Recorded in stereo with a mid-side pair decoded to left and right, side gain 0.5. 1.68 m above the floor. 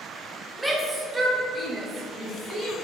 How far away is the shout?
About 1.8 m.